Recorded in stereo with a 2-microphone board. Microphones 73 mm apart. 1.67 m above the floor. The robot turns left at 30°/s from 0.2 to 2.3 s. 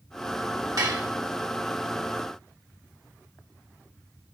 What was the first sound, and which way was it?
Dishes clattering, 55° right (ahead or behind).